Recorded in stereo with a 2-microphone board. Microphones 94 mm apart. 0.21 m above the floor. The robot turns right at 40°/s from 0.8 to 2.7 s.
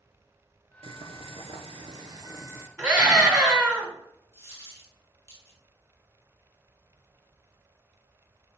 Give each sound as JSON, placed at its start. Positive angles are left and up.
{"t": 0.8, "sound": "boiling", "azimuth_deg": -100, "distance_m": 0.7}
{"t": 2.8, "sound": "a scream", "side_deg": -25, "distance_m": 2.5}
{"t": 4.3, "sound": "a dropped coin", "side_deg": 30, "distance_m": 3.5}